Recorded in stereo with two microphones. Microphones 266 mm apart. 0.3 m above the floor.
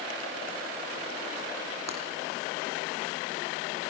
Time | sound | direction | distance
1.9 | breaking glass | 75° right (ahead or behind) | 6 m